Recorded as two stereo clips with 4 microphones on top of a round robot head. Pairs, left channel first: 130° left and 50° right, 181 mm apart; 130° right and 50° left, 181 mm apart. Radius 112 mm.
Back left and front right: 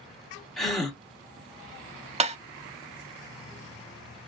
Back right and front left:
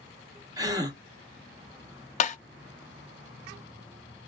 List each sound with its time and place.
0.6 s a gasp: 40° left, 1.2 m
2.2 s tapping: 95° right, 0.7 m